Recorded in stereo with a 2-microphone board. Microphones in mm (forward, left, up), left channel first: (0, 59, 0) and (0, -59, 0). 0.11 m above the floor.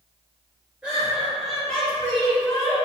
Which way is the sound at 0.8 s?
10° right (ahead or behind).